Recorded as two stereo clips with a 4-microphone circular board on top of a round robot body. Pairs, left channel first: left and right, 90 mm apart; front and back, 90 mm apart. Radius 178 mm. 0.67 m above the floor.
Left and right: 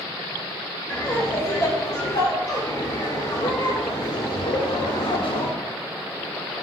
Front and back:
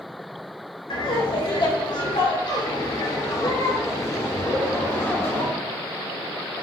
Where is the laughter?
25° left, 3.5 m; by 5.5 s 75° left, 2.5 m.